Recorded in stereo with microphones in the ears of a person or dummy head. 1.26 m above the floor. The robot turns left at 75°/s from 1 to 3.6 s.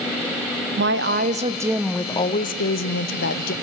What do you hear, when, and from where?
0.8 s a woman speaking: 115° right, 0.6 m; by 3.5 s 55° left, 0.6 m